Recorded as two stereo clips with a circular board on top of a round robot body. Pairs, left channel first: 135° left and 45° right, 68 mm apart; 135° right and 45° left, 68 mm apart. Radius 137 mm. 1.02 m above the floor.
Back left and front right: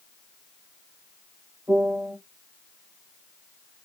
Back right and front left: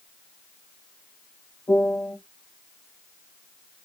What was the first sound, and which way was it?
A piano, 85° right.